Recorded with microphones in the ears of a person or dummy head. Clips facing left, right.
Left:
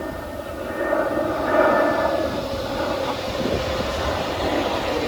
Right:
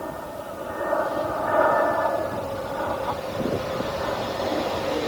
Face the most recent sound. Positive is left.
turn(degrees=40)  # may be behind; listen again after turning